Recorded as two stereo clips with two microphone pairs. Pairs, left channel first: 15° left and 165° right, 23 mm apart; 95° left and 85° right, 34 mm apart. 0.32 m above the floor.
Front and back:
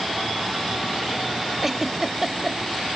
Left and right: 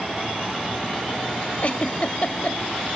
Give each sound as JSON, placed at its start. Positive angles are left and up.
{"t": 1.6, "sound": "a giggle", "azimuth_deg": 115, "distance_m": 0.6}